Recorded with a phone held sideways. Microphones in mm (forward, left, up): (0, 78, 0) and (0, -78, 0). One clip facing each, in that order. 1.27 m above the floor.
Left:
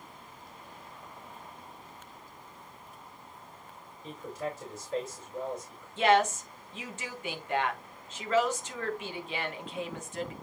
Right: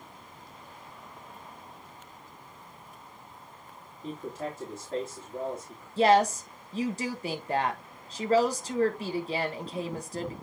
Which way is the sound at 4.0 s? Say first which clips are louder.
Right 1 dB; 60° right (ahead or behind).